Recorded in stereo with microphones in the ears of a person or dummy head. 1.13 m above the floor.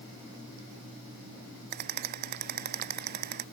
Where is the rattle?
50° right (ahead or behind).